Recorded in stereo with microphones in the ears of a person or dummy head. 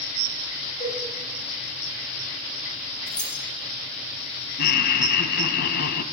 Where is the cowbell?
30° left (ahead or behind), 8.5 m.